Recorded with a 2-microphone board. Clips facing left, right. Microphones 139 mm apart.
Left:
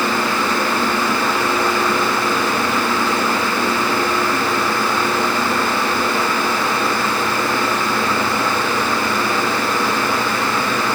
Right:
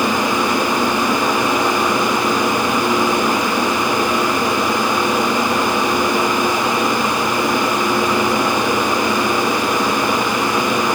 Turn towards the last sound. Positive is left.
No sound to turn to.